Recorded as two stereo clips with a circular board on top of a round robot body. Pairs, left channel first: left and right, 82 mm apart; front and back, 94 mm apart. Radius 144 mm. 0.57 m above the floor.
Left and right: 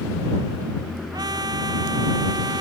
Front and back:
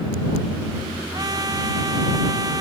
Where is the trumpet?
130° right.